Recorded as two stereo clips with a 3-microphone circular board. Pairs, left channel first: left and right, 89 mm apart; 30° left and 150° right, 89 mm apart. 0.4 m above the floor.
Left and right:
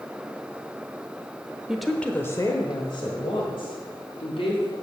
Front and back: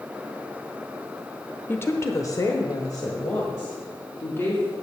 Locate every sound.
1.7 s a woman speaking: 15° right, 0.9 m; by 4.7 s 85° left, 3 m